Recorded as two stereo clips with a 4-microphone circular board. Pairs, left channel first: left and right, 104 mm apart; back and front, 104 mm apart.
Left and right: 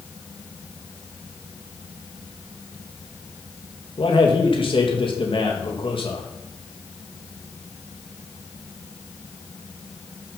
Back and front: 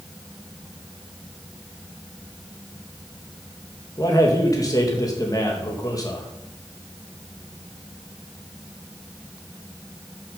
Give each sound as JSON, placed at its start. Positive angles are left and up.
{"t": 4.0, "sound": "a man speaking", "azimuth_deg": 125, "distance_m": 2.5}